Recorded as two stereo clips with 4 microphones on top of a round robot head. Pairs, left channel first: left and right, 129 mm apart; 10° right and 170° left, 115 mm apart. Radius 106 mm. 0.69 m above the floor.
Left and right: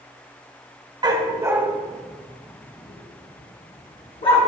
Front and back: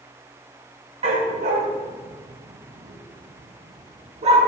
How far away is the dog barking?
About 2 m.